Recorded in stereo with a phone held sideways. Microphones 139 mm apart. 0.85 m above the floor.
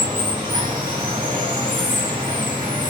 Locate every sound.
0.0 s running water: 35° right (ahead or behind), 1.2 m